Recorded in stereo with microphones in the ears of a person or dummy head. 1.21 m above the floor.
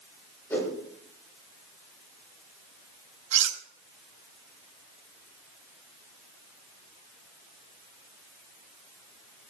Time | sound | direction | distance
0.5 | a whoosh | 15° left (ahead or behind) | 3 m
3.3 | cutlery clinking | 45° right (ahead or behind) | 2.5 m